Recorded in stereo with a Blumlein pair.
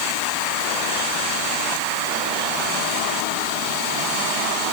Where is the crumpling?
No crumpling in this recording.